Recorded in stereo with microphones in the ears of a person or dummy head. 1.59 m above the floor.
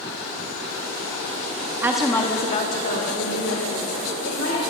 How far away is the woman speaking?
About 1.0 m.